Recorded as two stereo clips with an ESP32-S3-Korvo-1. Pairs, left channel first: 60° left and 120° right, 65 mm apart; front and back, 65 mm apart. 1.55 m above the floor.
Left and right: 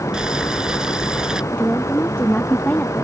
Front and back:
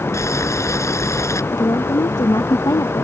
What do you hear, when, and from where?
0.1 s boiling: 40° right
1.5 s a woman speaking: 10° right